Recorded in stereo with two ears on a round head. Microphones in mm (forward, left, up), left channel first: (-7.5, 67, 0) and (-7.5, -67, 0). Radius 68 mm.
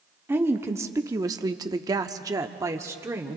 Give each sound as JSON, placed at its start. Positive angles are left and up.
{"t": 0.3, "sound": "a woman speaking", "side_deg": -15, "distance_m": 1.0}